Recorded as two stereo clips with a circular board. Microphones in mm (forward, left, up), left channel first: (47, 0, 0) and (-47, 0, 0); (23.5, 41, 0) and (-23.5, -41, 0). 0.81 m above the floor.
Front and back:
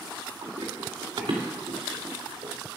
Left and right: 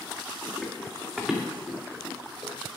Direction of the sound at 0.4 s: 145° left.